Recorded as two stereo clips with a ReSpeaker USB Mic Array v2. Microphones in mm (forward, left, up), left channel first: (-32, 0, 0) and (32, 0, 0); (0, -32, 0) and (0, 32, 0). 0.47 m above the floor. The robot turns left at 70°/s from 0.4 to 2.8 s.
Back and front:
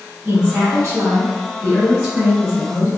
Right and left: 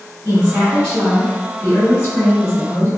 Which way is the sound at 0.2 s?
45° left.